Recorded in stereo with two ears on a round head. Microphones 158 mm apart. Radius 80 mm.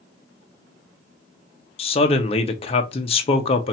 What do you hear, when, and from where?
1.8 s a man speaking: 35° left (ahead or behind), 1.0 m